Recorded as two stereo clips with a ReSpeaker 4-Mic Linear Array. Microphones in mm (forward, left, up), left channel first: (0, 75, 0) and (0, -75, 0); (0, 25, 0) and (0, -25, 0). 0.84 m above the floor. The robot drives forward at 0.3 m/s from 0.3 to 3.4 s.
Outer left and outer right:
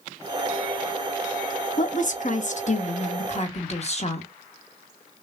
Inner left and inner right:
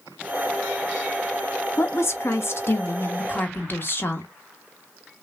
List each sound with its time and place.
1.8 s a woman speaking: 60° left (ahead or behind), 0.9 m; by 4.3 s 45° left (ahead or behind), 1.0 m